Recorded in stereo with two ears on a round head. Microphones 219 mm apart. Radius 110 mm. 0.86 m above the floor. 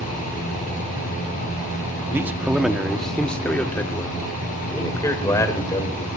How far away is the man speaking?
About 1.1 m.